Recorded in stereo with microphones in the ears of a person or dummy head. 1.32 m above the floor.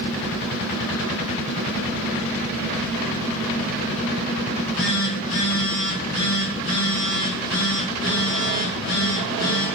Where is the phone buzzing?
65° left (ahead or behind), 2 m.